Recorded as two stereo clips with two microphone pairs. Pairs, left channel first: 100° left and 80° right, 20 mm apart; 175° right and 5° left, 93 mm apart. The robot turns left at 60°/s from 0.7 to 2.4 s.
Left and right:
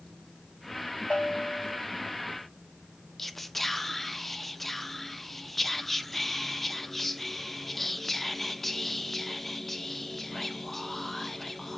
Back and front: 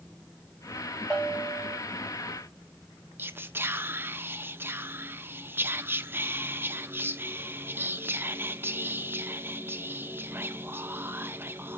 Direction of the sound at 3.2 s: 40° left.